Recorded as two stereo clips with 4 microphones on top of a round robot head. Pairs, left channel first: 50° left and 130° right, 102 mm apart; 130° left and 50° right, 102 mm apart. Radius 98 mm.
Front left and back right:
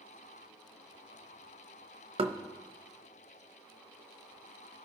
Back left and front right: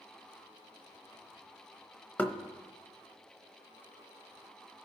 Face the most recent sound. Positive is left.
turn(degrees=-155)